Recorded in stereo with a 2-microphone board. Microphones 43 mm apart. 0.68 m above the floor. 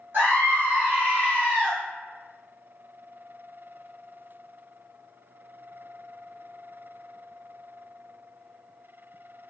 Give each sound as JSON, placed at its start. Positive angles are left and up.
{"t": 0.1, "sound": "a scream", "side_deg": -55, "distance_m": 1.3}